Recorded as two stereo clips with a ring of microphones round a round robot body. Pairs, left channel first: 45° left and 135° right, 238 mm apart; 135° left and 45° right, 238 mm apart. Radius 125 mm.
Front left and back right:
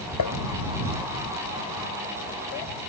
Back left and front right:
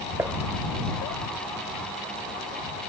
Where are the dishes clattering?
35° left.